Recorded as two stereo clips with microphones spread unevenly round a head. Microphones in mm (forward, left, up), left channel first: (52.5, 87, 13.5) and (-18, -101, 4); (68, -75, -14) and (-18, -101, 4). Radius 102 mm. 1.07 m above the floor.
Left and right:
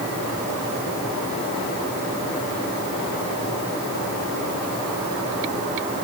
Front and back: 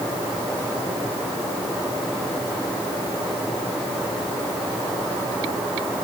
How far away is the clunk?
I don't hear a clunk.